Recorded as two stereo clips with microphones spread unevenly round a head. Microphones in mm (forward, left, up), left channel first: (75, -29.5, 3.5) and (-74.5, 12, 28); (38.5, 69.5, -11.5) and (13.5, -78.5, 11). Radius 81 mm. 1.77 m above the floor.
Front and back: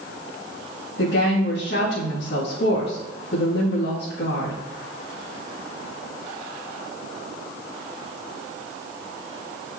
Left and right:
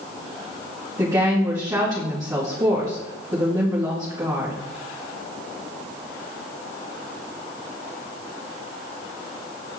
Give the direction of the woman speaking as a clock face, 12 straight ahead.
1 o'clock.